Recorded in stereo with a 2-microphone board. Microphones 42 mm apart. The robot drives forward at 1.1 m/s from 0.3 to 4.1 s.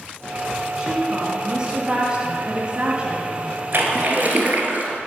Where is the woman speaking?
15° right (ahead or behind), 2.5 m.